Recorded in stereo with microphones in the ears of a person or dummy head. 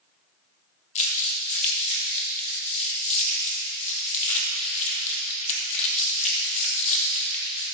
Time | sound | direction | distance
0.9 | crumpling | 35° left (ahead or behind) | 1.7 m